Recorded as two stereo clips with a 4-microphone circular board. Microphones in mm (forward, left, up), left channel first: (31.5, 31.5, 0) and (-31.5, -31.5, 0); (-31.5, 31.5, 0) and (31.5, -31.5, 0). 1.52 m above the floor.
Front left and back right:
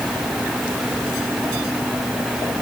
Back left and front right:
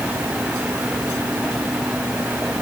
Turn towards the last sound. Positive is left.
No sound to turn to.